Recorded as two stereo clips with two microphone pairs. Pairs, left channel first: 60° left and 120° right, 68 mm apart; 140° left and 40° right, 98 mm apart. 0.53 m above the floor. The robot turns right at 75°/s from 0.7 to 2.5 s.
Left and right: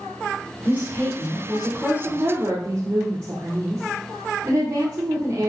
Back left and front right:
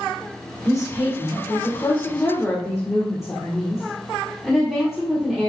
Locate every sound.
0.7 s a woman speaking: 105° left, 2 m; by 5.5 s 120° right, 2 m